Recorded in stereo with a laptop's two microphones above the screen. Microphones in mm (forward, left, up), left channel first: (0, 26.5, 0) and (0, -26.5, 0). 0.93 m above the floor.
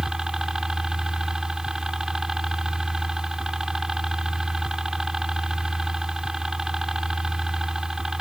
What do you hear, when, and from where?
0.0 s a helicopter: 10° right (ahead or behind)